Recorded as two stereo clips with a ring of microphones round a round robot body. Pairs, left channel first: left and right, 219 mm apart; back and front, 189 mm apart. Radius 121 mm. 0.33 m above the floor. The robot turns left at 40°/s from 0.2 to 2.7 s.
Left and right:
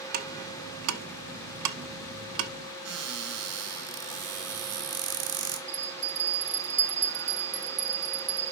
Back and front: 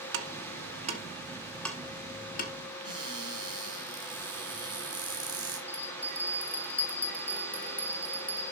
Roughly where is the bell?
Right.